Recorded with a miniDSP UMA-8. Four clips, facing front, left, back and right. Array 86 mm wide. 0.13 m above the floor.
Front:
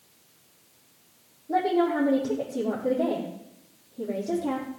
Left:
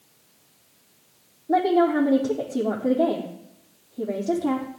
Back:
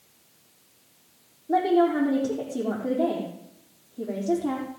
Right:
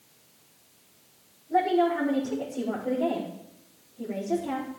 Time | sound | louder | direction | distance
1.5 | a woman speaking | left 4 dB, back 3 dB | 105° left | 6 m